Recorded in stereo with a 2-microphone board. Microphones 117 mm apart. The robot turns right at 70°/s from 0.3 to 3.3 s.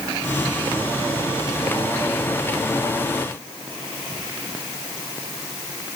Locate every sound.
Only background noise.